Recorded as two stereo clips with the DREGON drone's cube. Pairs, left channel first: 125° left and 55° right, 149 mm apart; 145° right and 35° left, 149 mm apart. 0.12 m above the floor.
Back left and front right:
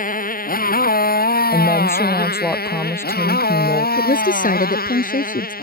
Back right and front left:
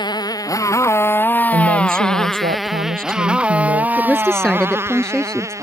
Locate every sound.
0.0 s a motorcycle: 150° left; by 5.6 s 105° left
1.5 s a woman speaking: 50° left
4.0 s a woman speaking: 130° left